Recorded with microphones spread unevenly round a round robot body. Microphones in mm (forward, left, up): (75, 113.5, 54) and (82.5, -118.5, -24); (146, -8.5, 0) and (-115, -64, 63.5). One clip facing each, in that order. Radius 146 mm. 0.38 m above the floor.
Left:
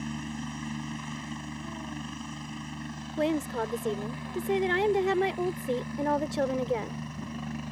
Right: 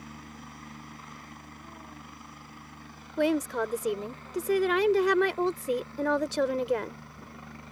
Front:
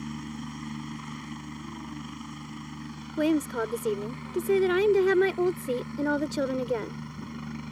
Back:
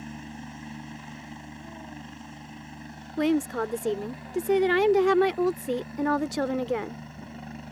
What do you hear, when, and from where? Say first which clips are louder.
0.0 s a helicopter: left 11 dB, front 4 dB; 80° left
3.2 s a woman speaking: right 2 dB, back 1 dB; 55° right